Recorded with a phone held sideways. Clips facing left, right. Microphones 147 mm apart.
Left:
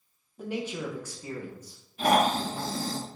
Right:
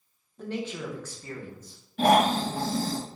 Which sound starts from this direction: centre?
A man speaking, at 0.4 s.